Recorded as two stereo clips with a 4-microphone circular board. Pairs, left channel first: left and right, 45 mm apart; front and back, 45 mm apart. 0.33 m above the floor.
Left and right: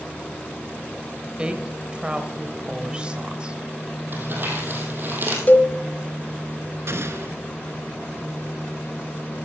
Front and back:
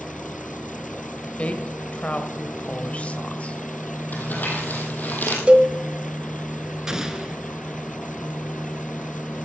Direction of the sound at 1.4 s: 35° right.